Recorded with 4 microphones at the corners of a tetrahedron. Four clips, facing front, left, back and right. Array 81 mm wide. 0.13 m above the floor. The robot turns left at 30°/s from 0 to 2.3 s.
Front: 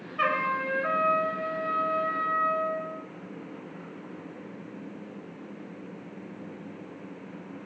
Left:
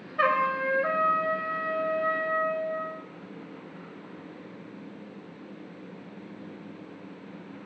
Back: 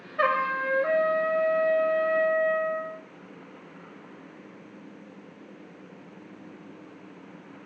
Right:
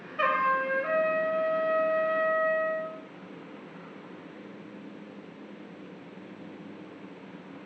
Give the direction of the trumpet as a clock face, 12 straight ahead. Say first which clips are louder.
Left 1 dB, back 2 dB; 8 o'clock.